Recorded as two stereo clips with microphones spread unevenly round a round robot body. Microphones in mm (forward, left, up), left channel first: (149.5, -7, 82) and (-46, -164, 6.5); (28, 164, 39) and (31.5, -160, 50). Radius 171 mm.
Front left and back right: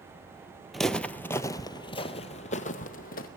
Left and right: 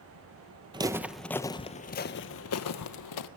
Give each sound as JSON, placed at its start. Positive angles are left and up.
{"t": 0.7, "sound": "footsteps", "azimuth_deg": -25, "distance_m": 1.0}